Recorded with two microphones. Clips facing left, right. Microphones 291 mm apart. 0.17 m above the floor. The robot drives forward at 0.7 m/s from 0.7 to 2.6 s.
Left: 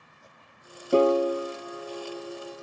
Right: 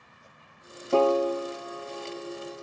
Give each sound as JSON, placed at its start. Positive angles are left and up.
{"t": 0.9, "sound": "a piano", "side_deg": 20, "distance_m": 0.7}